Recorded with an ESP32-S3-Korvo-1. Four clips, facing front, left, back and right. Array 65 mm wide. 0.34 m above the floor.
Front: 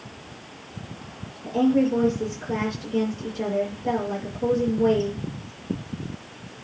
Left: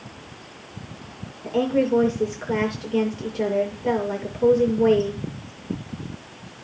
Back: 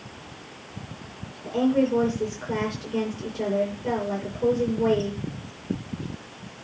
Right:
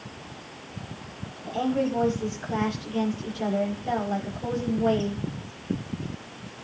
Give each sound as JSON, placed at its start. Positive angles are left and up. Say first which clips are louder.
{"t": 1.4, "sound": "a woman speaking", "louder": "left 5 dB, front 2 dB", "azimuth_deg": 95, "distance_m": 7.0}